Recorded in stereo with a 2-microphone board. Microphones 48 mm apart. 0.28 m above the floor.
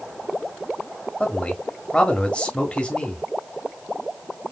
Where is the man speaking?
25° left (ahead or behind), 1.3 m.